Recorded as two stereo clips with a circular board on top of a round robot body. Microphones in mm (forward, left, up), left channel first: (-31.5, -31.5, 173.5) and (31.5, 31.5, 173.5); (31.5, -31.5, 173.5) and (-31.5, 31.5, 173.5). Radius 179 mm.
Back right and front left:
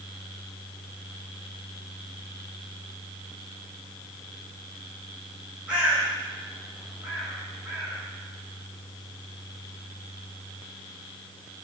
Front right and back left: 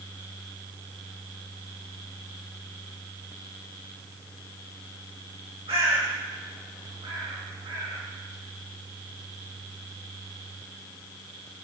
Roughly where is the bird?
Behind left.